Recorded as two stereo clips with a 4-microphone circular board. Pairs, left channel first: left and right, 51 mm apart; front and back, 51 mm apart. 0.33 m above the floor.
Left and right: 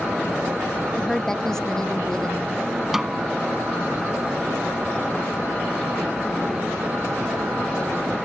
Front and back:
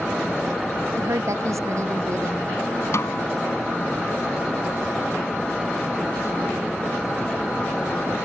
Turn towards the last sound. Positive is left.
turn(degrees=-5)